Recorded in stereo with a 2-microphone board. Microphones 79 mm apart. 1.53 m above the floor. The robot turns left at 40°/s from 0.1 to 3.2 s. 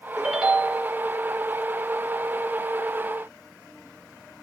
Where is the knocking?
No knocking in this recording.